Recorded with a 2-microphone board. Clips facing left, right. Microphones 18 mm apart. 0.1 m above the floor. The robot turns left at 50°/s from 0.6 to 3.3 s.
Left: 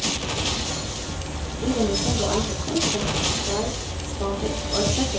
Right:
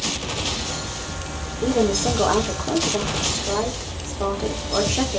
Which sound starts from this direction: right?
A woman speaking, at 1.6 s.